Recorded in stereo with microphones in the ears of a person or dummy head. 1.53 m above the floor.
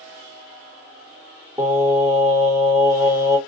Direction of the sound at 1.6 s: 15° right (ahead or behind).